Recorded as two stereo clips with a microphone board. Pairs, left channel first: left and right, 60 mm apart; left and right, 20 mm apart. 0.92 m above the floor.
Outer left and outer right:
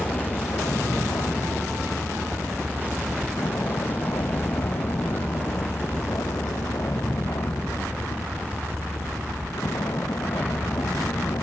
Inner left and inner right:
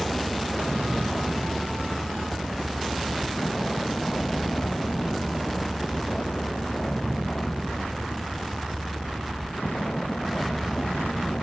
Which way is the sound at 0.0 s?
60° left (ahead or behind).